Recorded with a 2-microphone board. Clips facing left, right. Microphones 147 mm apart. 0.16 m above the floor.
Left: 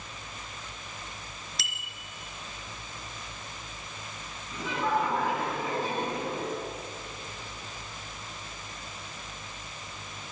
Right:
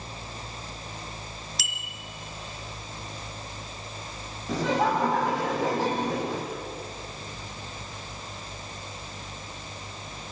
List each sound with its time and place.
1.6 s a bicycle bell: centre (ahead or behind), 2.5 m
4.5 s laughter: 80° right, 8 m